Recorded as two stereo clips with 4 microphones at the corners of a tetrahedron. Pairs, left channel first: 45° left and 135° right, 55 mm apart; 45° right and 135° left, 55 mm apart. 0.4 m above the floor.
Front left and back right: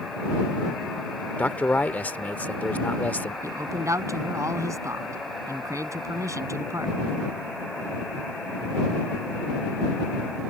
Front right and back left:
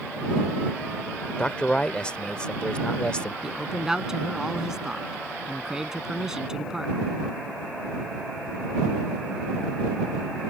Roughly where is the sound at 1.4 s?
Ahead.